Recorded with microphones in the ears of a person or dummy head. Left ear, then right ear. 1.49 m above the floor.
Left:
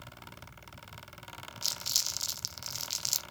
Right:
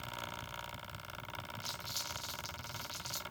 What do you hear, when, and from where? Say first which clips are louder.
1.6 s crumpling: left 11 dB; 85° left, 0.6 m